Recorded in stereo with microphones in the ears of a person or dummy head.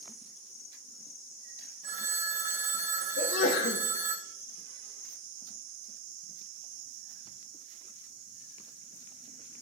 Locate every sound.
1.8 s a phone ringing: 50° right (ahead or behind), 1.3 m
3.2 s a sneeze: 60° left (ahead or behind), 1.7 m